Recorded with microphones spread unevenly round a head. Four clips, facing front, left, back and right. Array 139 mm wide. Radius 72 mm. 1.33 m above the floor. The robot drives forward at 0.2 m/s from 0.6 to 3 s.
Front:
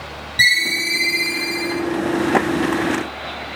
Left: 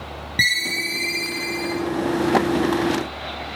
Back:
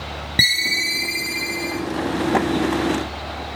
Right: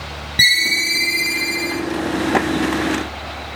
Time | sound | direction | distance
0.4 | a ringtone | 175° left | 0.7 m